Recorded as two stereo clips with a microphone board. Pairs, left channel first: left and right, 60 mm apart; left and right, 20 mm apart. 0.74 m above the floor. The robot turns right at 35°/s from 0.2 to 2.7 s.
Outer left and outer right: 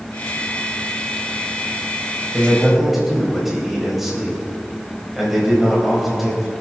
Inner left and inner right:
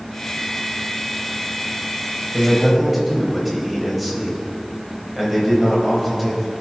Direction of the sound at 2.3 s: 15° right (ahead or behind).